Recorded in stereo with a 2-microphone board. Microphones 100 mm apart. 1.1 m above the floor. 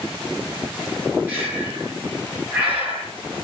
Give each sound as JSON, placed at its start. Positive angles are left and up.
{"t": 1.3, "sound": "breathing", "side_deg": -20, "distance_m": 5.0}